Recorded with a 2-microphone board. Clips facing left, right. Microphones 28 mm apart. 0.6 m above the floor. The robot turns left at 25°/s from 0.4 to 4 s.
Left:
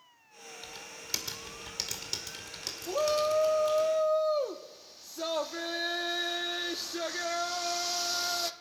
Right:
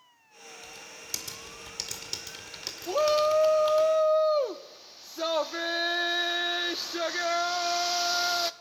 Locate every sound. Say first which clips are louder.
0.6 s typing on a keyboard: left 1 dB; 35° left, 2 m; by 3.9 s 45° right, 2 m
2.9 s a shout: right 4 dB; 25° right (ahead or behind), 0.7 m